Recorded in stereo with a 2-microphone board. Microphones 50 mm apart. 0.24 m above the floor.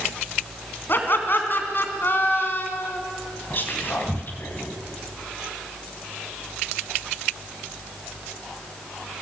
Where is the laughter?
45° left (ahead or behind), 2.5 m.